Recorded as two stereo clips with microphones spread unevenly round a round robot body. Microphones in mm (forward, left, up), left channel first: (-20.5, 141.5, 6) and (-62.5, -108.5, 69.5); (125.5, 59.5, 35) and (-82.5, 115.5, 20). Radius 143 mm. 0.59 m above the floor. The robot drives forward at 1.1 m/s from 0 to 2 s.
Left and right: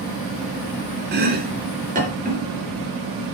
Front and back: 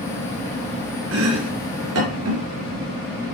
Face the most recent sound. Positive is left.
turn(degrees=-160)